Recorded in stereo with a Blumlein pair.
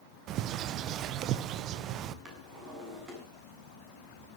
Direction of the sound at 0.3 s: 35° right.